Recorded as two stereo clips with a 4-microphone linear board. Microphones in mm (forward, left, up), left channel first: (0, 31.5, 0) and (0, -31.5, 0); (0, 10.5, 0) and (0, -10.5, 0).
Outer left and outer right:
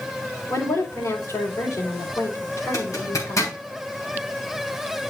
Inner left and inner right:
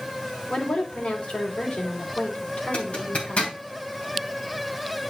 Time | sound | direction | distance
0.5 | a woman speaking | 65° left (ahead or behind) | 3.5 m
2.7 | a zipper | 60° left (ahead or behind) | 3 m